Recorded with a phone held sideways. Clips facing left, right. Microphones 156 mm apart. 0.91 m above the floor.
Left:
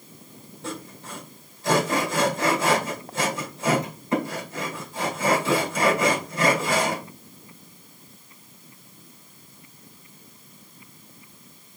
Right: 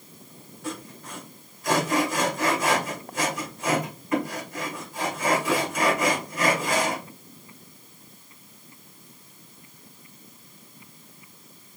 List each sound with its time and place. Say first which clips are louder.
0.6 s sawing: even; 30° left (ahead or behind), 2 m